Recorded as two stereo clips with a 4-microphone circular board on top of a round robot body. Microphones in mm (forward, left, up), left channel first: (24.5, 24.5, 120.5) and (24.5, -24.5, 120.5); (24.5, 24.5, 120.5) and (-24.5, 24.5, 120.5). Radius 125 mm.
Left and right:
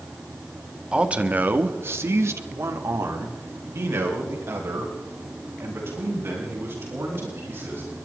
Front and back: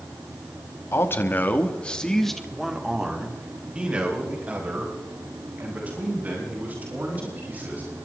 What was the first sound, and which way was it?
A man speaking, 25° right.